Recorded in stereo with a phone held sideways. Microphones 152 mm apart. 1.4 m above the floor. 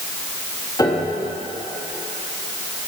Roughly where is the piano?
Left.